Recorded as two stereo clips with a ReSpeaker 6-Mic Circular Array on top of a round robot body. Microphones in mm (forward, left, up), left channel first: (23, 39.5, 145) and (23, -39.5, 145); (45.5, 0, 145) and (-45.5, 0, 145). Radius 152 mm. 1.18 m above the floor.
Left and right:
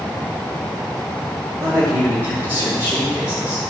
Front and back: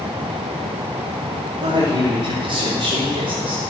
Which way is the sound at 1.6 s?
145° right.